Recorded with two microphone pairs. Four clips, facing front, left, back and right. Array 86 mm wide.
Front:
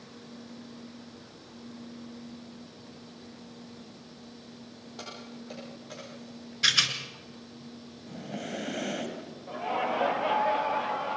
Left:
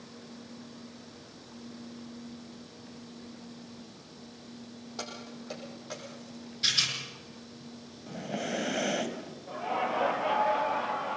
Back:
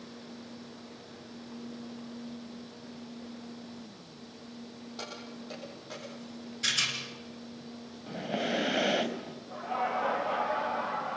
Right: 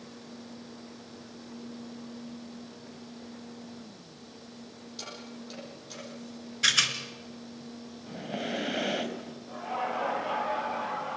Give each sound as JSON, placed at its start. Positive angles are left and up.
{"t": 5.0, "sound": "keys jangling", "azimuth_deg": 95, "distance_m": 7.5}
{"t": 6.6, "sound": "a rattle", "azimuth_deg": -50, "distance_m": 3.0}
{"t": 8.1, "sound": "breathing", "azimuth_deg": 180, "distance_m": 1.5}
{"t": 9.5, "sound": "laughter", "azimuth_deg": 30, "distance_m": 5.5}